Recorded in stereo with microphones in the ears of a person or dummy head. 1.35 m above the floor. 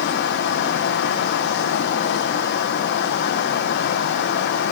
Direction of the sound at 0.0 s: 65° left (ahead or behind).